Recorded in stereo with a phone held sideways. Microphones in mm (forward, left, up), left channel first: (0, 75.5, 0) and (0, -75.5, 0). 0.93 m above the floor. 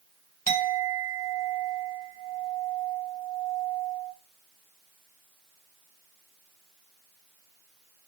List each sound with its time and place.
0.5 s a clink: 80° left, 2 m